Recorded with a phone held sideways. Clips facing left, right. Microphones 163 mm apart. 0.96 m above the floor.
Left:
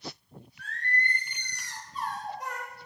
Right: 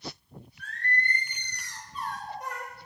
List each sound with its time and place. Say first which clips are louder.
0.6 s singing: right 1 dB; 75° left (ahead or behind), 1.7 m